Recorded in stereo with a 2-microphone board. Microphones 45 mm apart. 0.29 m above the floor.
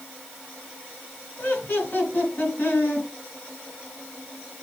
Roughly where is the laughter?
Left.